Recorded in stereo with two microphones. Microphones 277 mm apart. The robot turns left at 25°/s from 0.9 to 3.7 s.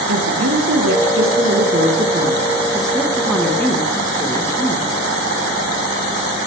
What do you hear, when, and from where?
0.1 s a woman speaking: 120° right, 6 m; by 4.9 s 170° left, 6 m